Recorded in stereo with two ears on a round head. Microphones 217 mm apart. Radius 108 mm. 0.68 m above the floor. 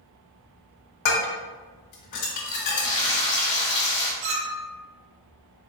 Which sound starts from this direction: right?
A clink, at 4.2 s.